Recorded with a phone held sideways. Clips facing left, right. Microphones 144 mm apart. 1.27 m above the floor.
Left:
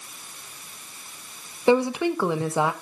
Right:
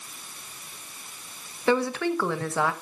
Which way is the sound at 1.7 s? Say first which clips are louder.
Left 4 dB; 20° left (ahead or behind).